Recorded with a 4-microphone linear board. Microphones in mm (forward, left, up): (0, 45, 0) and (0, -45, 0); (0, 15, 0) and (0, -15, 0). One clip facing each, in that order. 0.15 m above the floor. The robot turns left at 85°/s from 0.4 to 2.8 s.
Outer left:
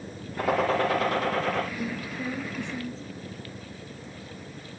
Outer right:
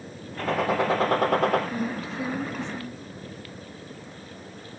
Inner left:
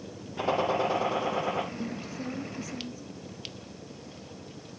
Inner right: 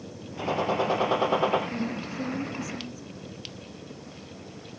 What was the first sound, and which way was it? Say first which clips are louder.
A gunshot: even, even; 15° left.